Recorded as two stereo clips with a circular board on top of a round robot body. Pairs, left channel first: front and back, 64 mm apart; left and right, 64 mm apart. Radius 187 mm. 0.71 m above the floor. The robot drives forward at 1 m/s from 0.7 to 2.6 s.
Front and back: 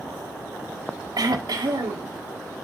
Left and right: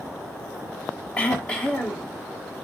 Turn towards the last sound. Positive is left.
turn(degrees=170)